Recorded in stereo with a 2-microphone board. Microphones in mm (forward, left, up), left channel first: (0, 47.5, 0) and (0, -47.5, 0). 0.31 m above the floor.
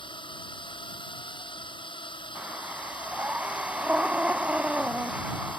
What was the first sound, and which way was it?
A drone, 55° left (ahead or behind).